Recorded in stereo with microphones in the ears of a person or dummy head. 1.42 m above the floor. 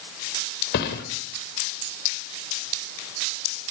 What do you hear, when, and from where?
0.7 s a thud: 55° left (ahead or behind), 3 m